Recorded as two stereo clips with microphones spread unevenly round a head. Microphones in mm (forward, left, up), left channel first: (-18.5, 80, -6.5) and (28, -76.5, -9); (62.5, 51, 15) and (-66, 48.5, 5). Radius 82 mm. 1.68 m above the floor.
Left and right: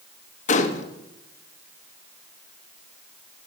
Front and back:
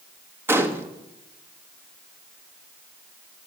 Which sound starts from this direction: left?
A gunshot, at 0.5 s.